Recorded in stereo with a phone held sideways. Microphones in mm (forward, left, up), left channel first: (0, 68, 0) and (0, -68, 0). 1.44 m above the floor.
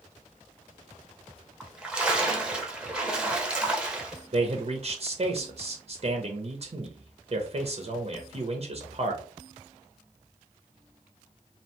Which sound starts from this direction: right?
A man speaking, at 4.3 s.